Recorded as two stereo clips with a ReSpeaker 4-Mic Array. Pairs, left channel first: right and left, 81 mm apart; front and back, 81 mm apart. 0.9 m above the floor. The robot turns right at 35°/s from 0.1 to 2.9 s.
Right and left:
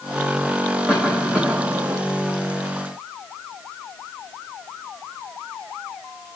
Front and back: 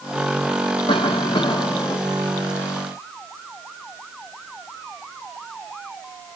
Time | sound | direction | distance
0.9 | a cough | 10° right | 1.6 m